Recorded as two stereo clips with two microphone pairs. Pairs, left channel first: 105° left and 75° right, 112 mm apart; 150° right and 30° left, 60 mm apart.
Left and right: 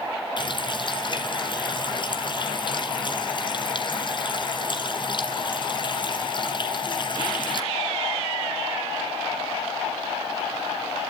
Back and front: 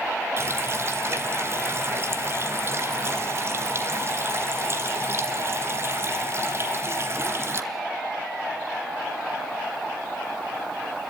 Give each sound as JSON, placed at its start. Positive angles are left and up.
{"t": 0.4, "sound": "a running tap", "azimuth_deg": 70, "distance_m": 1.8}